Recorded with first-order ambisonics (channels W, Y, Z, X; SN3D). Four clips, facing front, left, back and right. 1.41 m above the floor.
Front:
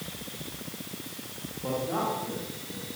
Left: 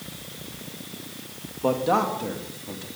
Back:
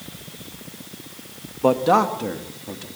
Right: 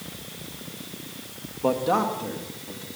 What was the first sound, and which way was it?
A man speaking, straight behind.